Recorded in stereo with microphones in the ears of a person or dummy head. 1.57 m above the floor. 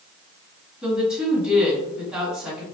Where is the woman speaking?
10° right (ahead or behind), 1.7 m.